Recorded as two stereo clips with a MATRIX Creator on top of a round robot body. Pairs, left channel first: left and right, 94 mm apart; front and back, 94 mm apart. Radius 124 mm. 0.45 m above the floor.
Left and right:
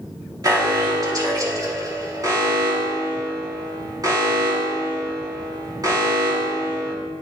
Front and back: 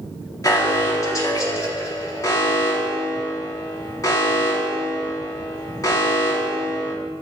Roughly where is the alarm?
Ahead right.